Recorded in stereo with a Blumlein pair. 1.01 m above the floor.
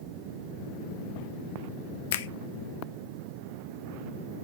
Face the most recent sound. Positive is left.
turn(degrees=55)